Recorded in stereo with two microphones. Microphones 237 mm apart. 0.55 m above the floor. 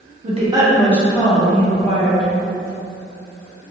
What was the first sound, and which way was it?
A woman speaking, 30° right (ahead or behind).